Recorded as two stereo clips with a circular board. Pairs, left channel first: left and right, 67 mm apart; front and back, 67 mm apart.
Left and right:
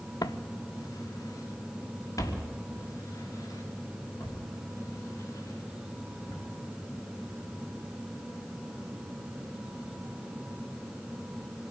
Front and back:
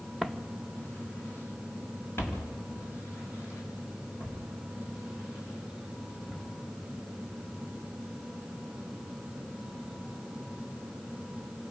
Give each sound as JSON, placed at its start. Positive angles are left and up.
{"t": 0.2, "sound": "footsteps", "azimuth_deg": 85, "distance_m": 0.9}